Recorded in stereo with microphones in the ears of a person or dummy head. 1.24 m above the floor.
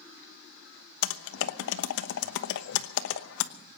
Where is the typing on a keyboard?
75° left (ahead or behind), 1.0 m.